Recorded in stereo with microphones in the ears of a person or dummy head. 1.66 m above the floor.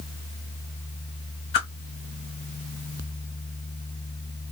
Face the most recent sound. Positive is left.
turn(degrees=35)  # may be behind; listen again after turning